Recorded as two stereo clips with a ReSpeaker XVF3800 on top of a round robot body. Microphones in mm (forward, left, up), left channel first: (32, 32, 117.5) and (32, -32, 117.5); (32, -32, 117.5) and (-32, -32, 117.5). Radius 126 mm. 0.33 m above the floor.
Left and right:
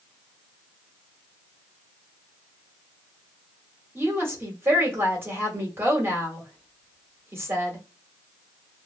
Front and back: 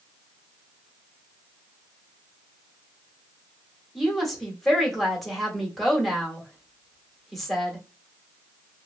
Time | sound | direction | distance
4.0 | a woman speaking | 85° right | 1.4 m